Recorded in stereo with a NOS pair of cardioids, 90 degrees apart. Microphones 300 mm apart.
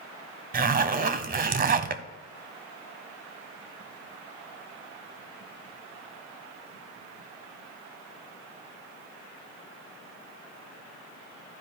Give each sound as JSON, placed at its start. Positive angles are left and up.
{"t": 0.5, "sound": "a zipper", "azimuth_deg": -30, "distance_m": 0.7}